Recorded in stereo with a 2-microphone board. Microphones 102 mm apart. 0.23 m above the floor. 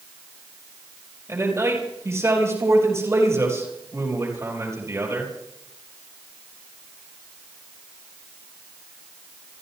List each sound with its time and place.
1.3 s a man speaking: 30° right (ahead or behind), 5.5 m